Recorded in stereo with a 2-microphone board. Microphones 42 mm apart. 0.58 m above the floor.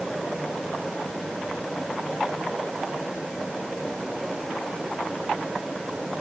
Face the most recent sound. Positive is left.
No sound to turn to.